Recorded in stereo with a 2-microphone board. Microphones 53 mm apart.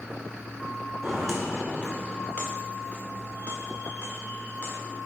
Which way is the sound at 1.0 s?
5° right (ahead or behind).